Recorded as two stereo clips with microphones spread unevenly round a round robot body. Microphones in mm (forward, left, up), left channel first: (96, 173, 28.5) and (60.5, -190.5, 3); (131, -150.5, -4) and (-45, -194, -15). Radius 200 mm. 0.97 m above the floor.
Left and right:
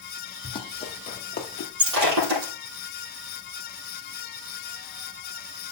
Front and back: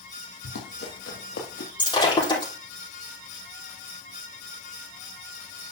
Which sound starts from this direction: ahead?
Running footsteps, at 0.4 s.